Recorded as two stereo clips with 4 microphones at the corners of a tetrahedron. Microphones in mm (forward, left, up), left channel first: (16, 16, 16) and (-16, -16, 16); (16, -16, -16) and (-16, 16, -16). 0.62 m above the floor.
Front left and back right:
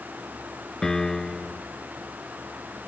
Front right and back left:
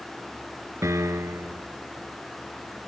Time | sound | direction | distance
0.8 | a piano | 125° left | ?